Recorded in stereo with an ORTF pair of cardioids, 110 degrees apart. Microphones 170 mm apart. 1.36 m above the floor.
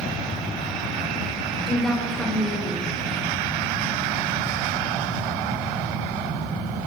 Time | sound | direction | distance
1.7 | a woman speaking | 5° left | 3 m